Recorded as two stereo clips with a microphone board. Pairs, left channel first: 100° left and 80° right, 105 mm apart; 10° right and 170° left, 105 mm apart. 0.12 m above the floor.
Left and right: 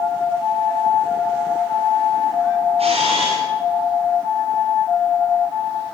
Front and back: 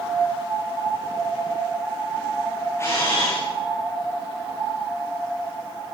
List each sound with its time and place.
2.8 s a camera shutter: 75° right, 10 m